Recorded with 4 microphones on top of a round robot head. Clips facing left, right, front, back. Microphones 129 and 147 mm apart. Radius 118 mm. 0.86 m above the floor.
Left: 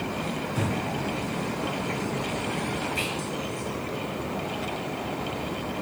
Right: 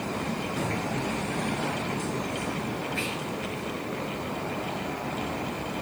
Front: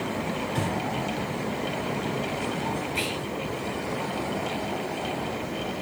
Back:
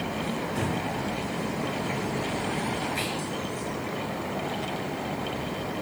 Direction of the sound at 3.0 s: 45° left.